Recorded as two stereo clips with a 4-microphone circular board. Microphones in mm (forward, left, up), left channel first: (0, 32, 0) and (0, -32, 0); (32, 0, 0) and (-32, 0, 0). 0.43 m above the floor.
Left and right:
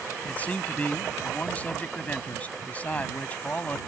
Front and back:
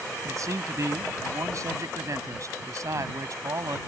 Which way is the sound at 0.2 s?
155° left.